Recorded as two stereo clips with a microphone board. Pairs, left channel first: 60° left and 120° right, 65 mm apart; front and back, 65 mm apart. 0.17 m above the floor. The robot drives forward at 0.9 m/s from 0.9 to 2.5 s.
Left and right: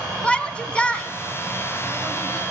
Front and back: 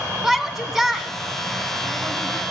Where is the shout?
105° left, 1.2 m; by 2.4 s 165° left, 1.9 m.